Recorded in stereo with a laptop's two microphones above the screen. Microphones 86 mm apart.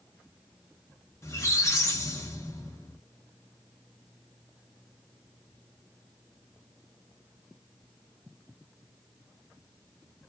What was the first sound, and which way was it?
A squeak, 35° left (ahead or behind).